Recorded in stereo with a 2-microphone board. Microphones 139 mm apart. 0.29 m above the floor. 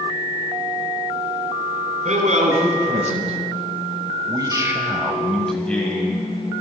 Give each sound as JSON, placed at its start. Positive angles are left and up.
{"t": 2.0, "sound": "a man speaking", "side_deg": -65, "distance_m": 2.0}